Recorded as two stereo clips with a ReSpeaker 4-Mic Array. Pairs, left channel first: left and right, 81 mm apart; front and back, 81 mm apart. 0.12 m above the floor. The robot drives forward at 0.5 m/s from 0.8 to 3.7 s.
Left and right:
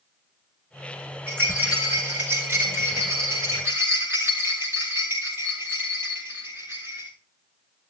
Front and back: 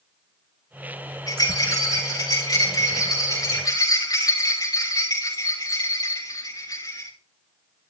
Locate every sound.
1.3 s a rattle: 30° right, 9.5 m; by 7.1 s 35° right, 8.5 m